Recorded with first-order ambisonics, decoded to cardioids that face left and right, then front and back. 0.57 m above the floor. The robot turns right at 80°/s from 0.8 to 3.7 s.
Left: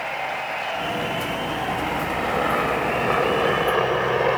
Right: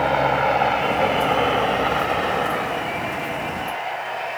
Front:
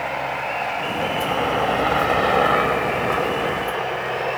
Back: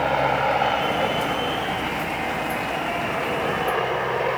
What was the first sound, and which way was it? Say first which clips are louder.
A helicopter: right 8 dB, back 4 dB; 120° right.